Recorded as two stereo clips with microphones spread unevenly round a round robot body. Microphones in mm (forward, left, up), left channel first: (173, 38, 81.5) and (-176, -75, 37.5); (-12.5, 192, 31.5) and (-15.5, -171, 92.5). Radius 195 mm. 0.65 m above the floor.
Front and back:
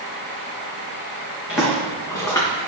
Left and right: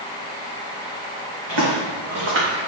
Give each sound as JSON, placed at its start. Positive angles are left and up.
{"t": 1.5, "sound": "footsteps", "azimuth_deg": -75, "distance_m": 3.0}